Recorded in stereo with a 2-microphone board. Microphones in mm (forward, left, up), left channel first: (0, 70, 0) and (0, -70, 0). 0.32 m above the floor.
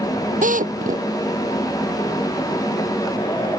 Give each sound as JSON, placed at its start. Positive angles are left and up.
{"t": 0.4, "sound": "a drill", "side_deg": -70}